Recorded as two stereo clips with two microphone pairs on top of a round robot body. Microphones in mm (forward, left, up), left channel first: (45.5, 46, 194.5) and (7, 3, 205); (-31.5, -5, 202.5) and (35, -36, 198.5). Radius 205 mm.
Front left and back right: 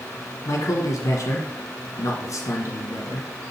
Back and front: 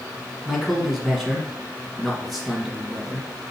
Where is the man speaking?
75° left, 1.4 m.